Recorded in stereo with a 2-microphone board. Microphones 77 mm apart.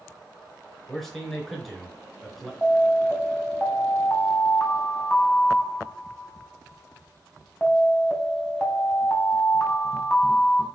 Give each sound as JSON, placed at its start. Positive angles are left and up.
{"t": 0.9, "sound": "a man speaking", "side_deg": 5, "distance_m": 4.5}
{"t": 2.6, "sound": "an alarm", "side_deg": 10, "distance_m": 4.0}